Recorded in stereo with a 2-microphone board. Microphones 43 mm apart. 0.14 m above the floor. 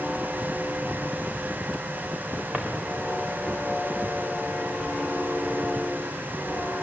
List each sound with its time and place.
2.5 s a drawer: 25° right (ahead or behind), 3.5 m